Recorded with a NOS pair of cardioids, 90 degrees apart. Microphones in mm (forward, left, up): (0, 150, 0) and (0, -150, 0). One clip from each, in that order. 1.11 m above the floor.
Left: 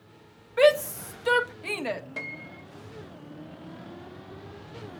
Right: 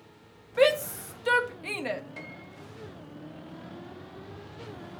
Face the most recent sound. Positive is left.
turn(degrees=20)